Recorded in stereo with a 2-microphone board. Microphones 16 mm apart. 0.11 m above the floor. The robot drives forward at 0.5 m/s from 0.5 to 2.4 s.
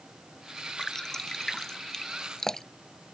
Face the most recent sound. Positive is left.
turn(degrees=25)  # may be behind; listen again after turning